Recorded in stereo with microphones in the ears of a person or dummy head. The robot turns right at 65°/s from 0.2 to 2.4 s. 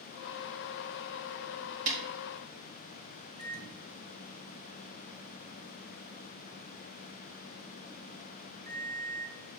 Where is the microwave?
55° right (ahead or behind), 2.5 m.